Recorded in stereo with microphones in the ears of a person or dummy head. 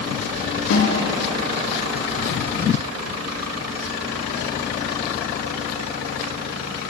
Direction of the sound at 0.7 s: 75° left (ahead or behind).